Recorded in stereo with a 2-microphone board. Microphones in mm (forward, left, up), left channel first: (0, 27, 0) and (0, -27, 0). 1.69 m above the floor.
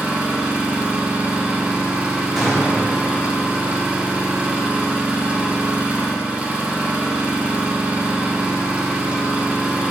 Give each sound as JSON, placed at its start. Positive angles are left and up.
{"t": 0.0, "sound": "an engine running", "side_deg": -20, "distance_m": 0.9}
{"t": 2.4, "sound": "a gunshot", "side_deg": 0, "distance_m": 1.6}